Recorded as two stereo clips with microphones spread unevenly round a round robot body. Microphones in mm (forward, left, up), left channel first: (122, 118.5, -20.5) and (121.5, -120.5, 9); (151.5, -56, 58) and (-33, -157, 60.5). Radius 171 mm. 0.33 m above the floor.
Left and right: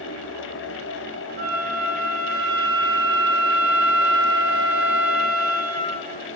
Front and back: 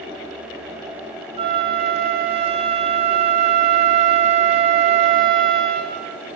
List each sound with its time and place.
1.4 s a flute: 90° right, 0.6 m